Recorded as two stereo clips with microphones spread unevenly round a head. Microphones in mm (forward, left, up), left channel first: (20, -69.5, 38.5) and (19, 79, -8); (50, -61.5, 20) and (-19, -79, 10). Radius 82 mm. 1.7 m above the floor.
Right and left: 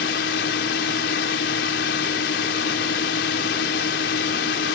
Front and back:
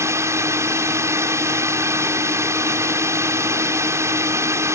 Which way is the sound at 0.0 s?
115° right.